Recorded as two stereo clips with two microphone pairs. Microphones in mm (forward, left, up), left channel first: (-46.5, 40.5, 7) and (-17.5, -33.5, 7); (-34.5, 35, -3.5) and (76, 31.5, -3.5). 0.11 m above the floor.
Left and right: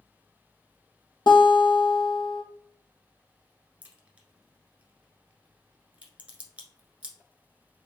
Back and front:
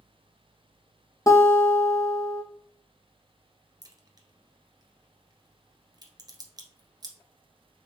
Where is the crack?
5° right, 1.3 m.